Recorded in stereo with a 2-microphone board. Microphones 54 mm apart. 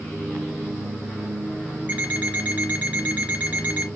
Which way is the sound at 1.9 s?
30° right (ahead or behind).